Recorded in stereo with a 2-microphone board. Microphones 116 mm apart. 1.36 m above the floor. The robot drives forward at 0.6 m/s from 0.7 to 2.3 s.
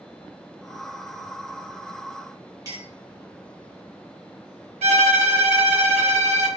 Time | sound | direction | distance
2.6 | a clink | 30° right (ahead or behind) | 1.2 m
4.8 | a violin | 75° right (ahead or behind) | 0.9 m